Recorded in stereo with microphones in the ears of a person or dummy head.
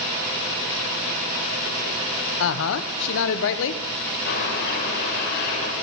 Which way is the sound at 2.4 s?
70° left (ahead or behind).